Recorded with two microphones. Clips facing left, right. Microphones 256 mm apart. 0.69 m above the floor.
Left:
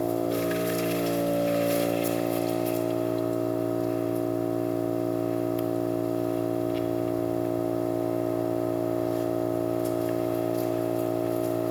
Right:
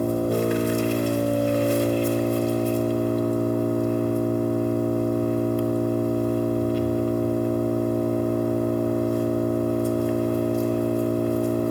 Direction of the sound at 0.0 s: 55° right (ahead or behind).